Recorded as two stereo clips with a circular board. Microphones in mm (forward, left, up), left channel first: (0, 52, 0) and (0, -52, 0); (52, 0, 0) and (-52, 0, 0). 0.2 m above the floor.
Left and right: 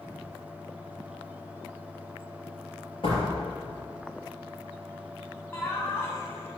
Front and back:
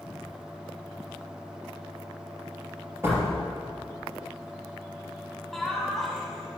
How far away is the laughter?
About 1.5 m.